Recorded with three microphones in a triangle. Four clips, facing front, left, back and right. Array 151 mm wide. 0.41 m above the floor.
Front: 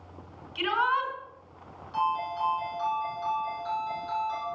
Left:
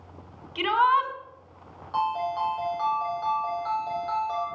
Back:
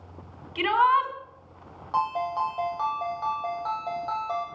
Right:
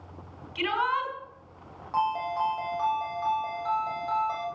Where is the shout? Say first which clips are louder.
Left 6 dB, back 6 dB; 145° left, 4.5 m.